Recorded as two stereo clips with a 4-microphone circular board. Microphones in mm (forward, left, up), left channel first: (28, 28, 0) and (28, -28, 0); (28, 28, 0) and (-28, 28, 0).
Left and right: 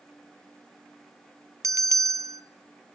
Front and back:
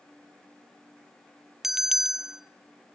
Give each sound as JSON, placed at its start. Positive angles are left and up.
{"t": 1.6, "sound": "a bell", "azimuth_deg": -95, "distance_m": 0.7}